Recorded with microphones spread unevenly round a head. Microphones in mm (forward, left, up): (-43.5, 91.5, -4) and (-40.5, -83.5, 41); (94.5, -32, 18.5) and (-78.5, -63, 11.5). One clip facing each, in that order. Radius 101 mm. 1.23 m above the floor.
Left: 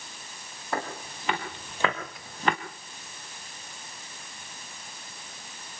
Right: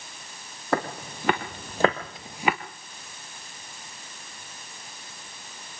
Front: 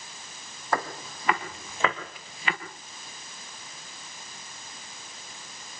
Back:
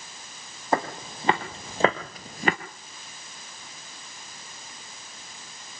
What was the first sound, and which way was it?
Footsteps, 105° right.